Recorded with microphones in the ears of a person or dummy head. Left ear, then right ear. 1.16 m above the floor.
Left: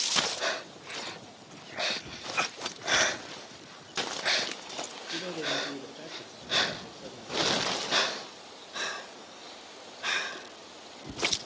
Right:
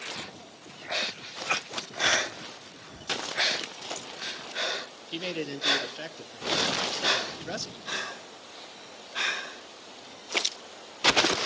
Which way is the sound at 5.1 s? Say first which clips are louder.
Left 1 dB; 50° right (ahead or behind).